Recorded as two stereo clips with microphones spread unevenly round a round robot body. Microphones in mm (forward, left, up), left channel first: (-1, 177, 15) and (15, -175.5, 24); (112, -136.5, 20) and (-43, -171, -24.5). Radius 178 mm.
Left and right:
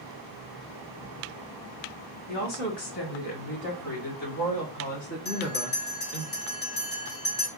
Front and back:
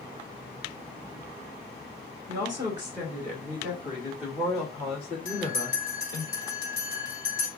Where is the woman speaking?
100° left, 2.5 m; by 6.2 s 35° left, 1.7 m.